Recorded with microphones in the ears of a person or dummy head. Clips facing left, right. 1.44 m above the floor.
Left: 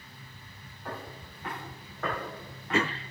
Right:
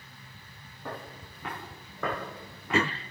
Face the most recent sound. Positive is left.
turn(degrees=-75)  # may be behind; listen again after turning